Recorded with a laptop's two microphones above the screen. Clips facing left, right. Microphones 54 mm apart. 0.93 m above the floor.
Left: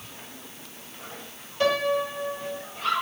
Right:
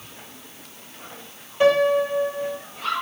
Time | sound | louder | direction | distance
1.6 | a piano | right 6 dB | 20° right (ahead or behind) | 2.5 m